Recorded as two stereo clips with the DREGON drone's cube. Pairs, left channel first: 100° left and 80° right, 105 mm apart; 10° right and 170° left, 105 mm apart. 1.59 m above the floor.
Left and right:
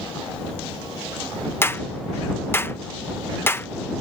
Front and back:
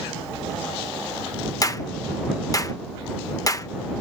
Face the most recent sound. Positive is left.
turn(degrees=35)